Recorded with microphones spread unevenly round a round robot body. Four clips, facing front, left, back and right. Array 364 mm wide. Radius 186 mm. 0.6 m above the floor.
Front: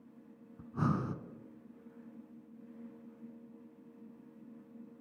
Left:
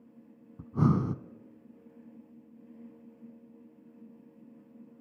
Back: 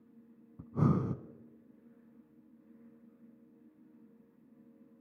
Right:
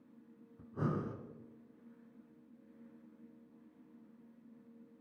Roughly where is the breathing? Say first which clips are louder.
Left 10 dB, back 3 dB; left.